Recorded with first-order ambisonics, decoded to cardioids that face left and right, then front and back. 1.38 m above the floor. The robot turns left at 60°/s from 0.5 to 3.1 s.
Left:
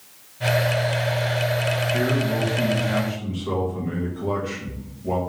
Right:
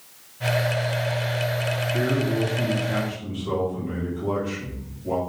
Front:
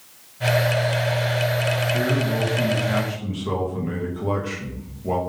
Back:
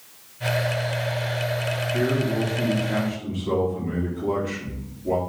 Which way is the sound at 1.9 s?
90° left.